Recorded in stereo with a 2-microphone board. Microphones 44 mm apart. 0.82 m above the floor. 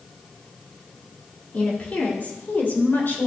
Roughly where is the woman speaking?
Left.